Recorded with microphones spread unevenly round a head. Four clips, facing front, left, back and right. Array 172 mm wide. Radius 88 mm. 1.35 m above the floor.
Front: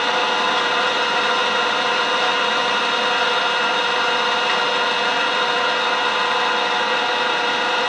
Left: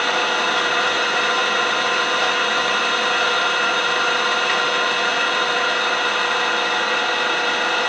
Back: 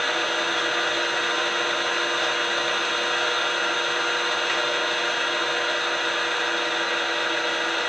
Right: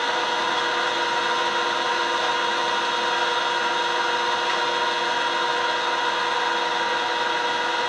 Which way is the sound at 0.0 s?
45° left.